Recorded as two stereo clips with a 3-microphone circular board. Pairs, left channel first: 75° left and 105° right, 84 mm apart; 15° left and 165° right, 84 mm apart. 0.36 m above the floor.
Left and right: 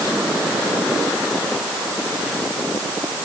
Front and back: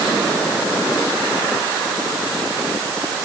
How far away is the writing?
I don't hear writing.